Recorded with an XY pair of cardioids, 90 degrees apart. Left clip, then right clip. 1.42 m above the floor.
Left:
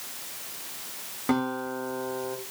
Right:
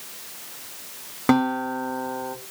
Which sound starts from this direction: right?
A guitar, at 1.3 s.